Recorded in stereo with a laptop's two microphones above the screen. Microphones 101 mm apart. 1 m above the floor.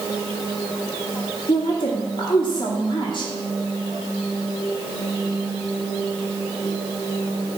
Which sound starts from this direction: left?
A woman speaking, at 1.5 s.